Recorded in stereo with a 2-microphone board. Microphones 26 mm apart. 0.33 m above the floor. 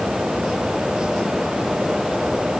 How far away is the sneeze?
I don't hear a sneeze.